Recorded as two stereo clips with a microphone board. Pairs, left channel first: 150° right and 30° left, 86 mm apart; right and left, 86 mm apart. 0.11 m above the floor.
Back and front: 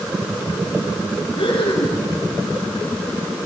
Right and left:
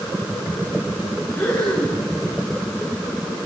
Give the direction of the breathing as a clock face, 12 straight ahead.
6 o'clock.